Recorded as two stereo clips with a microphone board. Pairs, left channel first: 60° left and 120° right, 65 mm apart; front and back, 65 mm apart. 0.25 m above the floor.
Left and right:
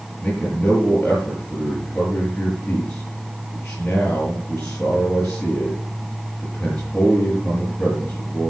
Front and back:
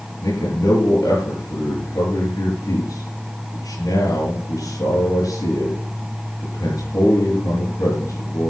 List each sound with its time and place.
0.2 s a man speaking: 15° right, 5.5 m